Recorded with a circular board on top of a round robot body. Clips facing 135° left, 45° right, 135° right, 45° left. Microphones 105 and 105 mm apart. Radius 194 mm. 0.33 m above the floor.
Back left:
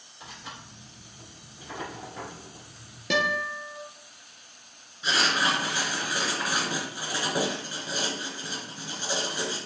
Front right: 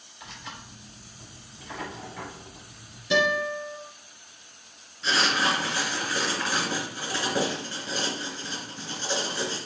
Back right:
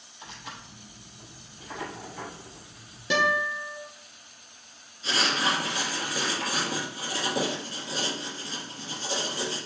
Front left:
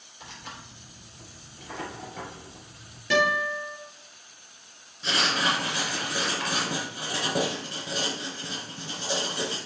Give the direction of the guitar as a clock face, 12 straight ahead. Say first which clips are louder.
Front right 3 dB, front left 1 dB; 7 o'clock.